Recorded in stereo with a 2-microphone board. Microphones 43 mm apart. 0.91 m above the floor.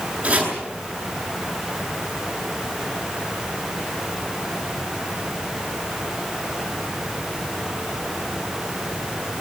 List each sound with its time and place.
0.2 s chopping: 25° right (ahead or behind), 9 m